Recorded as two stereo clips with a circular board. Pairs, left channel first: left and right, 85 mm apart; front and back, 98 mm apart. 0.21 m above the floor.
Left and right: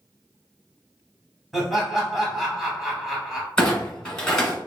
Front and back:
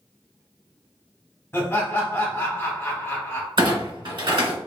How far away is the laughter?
About 1.2 m.